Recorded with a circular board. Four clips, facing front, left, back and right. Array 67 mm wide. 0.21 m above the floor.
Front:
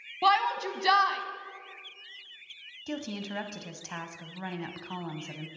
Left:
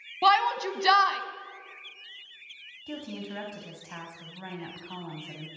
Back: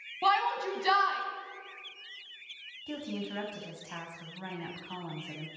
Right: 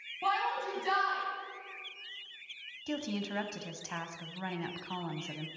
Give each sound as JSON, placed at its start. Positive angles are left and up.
{"t": 0.2, "sound": "a shout", "azimuth_deg": 75, "distance_m": 1.2}
{"t": 2.9, "sound": "a woman speaking", "azimuth_deg": -35, "distance_m": 1.2}